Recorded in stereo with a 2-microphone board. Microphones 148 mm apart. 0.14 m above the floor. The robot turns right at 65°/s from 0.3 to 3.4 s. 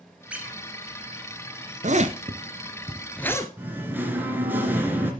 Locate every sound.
0.3 s a squeak: 5° right (ahead or behind), 1.7 m; by 0.6 s 25° right (ahead or behind), 1.7 m
1.8 s a zipper: 55° right (ahead or behind), 1.2 m; by 3.5 s 20° left (ahead or behind), 1.2 m
3.6 s singing: 15° right (ahead or behind), 2.5 m